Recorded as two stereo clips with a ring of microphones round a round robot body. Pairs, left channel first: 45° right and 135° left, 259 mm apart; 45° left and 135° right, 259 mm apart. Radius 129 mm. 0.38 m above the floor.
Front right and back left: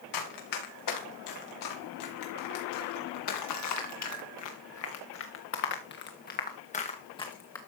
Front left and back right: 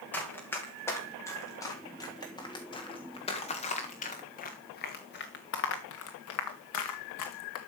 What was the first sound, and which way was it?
Running footsteps, 40° right.